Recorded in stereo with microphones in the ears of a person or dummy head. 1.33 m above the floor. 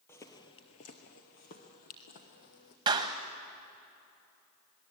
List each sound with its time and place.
0.1 s footsteps: 15° left (ahead or behind), 1.9 m; by 2.8 s 45° left (ahead or behind), 3.5 m
2.9 s a clap: 20° right (ahead or behind), 1.5 m